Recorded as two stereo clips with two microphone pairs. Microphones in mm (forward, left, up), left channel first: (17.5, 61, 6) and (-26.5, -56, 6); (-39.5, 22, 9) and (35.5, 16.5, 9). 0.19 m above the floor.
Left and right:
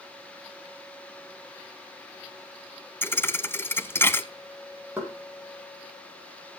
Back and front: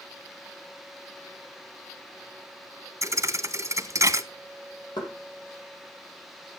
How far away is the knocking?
About 5.5 m.